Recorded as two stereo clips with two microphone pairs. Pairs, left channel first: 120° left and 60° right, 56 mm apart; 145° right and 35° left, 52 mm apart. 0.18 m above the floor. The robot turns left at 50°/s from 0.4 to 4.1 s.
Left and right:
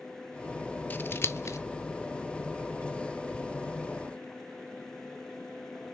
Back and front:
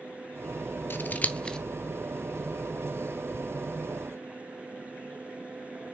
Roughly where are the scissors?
Behind.